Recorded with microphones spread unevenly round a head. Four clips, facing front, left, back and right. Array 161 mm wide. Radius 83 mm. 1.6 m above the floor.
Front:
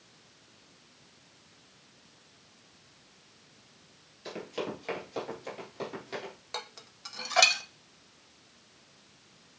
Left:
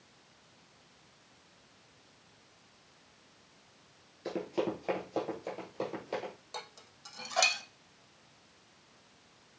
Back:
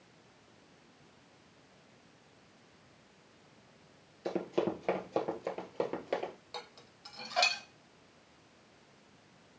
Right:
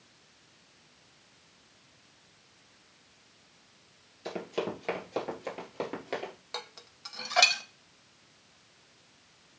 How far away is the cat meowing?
I don't hear a cat meowing.